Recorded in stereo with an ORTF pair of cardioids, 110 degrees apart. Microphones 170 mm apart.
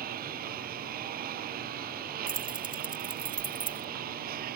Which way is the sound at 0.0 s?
65° right.